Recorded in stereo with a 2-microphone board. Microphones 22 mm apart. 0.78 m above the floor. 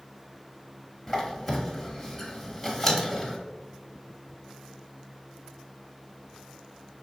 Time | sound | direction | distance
1.1 | a squeak | 10° left (ahead or behind) | 0.9 m